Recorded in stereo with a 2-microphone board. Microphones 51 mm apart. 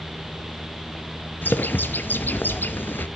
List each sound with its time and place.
1.4 s a bird: 40° left (ahead or behind), 0.6 m